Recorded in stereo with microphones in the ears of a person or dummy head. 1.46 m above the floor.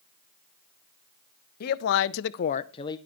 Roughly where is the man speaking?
Left.